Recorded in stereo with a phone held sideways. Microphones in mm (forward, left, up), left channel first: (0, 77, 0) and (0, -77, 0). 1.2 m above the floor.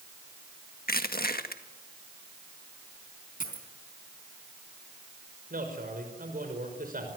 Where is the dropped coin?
60° left (ahead or behind), 3.5 m.